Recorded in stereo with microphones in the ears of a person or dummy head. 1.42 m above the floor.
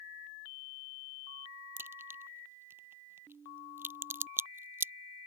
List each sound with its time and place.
1.8 s a crack: 15° right (ahead or behind)